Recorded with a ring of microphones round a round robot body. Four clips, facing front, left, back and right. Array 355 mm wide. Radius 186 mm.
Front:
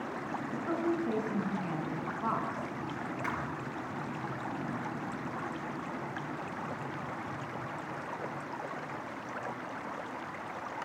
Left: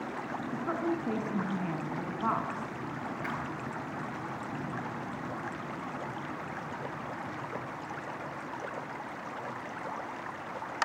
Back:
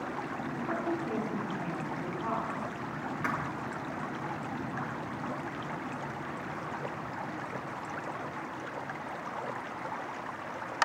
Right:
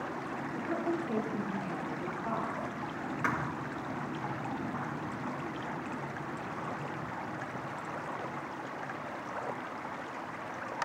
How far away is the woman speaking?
About 6 m.